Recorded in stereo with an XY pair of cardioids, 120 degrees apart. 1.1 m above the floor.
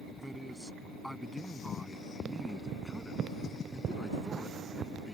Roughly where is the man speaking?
Ahead.